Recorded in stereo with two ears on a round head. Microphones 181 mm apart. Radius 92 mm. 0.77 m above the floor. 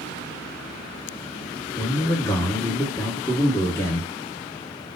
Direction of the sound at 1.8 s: 15° left (ahead or behind).